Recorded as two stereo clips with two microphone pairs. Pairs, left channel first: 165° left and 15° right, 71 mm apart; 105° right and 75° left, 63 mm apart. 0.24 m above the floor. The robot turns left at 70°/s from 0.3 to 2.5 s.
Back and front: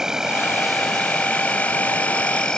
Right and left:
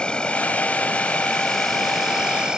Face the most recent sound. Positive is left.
turn(degrees=125)